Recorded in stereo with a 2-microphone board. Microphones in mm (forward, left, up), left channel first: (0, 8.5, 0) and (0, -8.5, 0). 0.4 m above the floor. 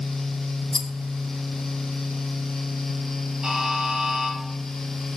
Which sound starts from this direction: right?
A buzzer, at 3.4 s.